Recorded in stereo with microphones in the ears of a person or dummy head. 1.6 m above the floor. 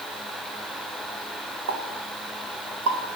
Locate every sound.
1.7 s a pop: 80° right, 1.6 m